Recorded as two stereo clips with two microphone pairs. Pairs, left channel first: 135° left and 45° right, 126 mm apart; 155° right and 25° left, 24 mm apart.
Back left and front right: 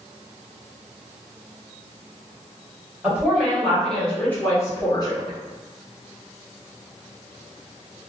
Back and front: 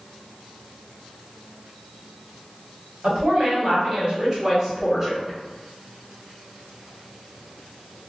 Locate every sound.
3.0 s a woman speaking: 35° left, 1.5 m; by 5.4 s 115° left, 1.2 m